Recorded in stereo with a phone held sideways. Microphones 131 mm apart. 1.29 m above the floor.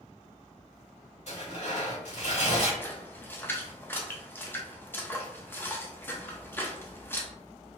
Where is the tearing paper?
60° left (ahead or behind), 2 m.